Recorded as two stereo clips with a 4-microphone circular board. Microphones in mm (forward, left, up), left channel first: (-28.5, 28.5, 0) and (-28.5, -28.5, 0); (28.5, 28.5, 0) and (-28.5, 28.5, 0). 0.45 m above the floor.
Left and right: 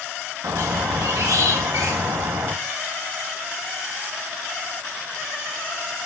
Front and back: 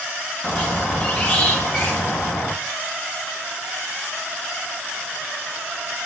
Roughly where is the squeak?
Ahead right.